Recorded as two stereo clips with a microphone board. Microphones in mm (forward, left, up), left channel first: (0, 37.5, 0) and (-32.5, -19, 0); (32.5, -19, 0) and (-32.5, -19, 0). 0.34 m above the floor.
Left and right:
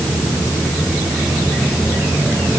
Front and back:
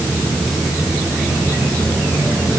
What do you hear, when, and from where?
Only background noise.